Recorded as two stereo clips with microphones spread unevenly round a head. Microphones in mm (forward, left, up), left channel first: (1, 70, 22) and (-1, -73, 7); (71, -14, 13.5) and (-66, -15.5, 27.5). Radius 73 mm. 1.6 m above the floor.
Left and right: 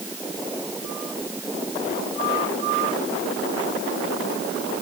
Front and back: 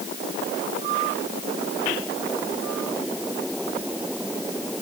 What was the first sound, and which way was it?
Only background noise.